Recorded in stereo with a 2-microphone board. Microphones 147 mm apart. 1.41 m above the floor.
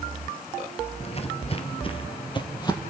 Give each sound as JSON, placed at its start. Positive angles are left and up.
{"t": 1.0, "sound": "footsteps", "side_deg": 40, "distance_m": 1.8}